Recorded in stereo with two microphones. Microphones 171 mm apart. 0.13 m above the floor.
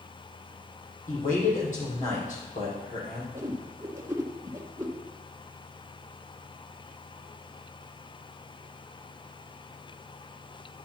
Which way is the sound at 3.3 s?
15° right (ahead or behind).